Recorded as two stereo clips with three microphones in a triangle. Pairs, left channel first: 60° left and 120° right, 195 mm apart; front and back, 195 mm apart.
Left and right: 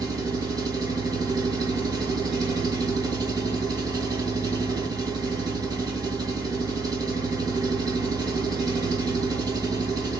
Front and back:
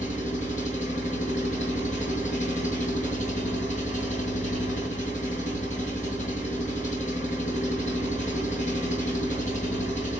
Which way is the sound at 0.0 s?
50° right.